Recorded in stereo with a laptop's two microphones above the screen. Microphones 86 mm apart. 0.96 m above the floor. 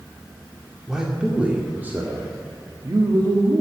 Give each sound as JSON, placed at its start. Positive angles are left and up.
{"t": 0.9, "sound": "a man speaking", "side_deg": -5, "distance_m": 2.5}